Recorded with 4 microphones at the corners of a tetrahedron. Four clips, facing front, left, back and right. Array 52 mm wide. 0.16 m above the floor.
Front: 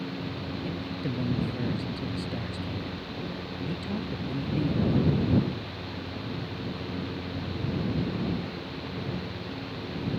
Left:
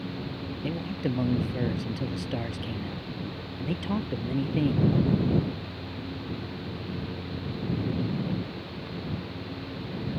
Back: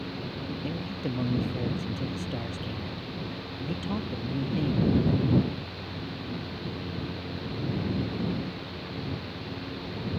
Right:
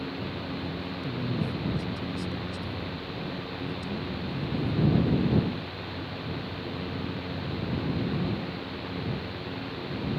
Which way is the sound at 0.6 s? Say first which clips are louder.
Left 3 dB, even; 105° left.